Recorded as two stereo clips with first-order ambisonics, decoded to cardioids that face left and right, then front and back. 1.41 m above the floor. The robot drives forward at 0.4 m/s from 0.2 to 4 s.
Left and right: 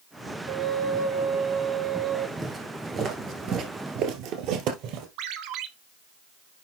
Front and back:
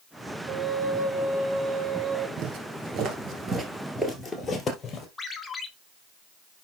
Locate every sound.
0.5 s a flute: 120° right, 2.0 m; by 2.3 s 135° right, 2.5 m
2.4 s footsteps: 170° right, 2 m; by 5.1 s 60° right, 3 m
5.2 s a ringtone: 80° right, 1.3 m